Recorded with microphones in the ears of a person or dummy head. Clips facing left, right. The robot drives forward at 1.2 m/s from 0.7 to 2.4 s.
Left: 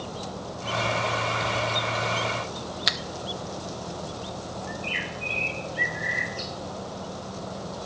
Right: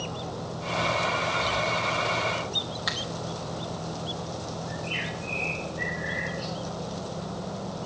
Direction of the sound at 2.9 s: 35° left (ahead or behind).